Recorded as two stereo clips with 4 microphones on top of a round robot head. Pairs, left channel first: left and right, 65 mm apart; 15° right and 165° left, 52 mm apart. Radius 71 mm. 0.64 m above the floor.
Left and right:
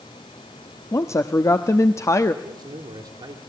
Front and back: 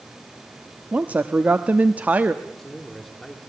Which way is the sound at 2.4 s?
100° right.